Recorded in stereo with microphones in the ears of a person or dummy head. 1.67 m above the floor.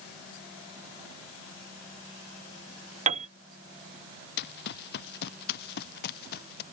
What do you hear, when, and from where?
3.1 s a piano: 35° right (ahead or behind)
4.4 s running footsteps: 65° left (ahead or behind); by 6.6 s 60° left (ahead or behind)